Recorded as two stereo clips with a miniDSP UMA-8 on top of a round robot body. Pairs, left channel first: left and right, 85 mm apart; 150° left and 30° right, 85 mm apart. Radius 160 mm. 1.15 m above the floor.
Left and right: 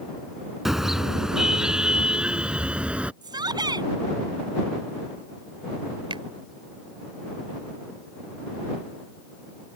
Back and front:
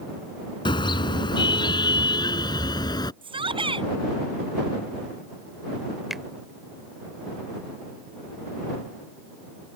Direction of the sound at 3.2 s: 50° right.